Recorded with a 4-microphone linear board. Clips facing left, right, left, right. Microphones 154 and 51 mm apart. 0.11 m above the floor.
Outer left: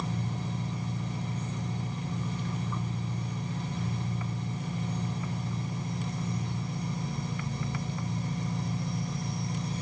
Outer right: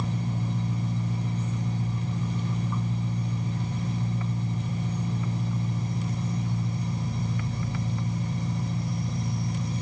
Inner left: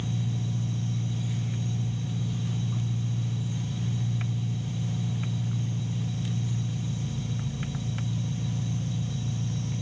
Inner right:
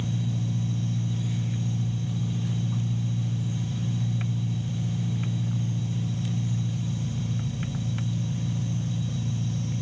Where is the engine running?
20° right (ahead or behind), 2 m.